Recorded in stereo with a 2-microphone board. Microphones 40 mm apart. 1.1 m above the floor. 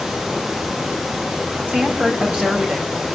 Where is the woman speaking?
35° right (ahead or behind), 5 m; by 2.9 s 25° right (ahead or behind), 4.5 m.